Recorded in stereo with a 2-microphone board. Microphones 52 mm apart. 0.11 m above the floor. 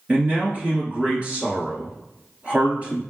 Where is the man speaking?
25° right (ahead or behind), 2 m.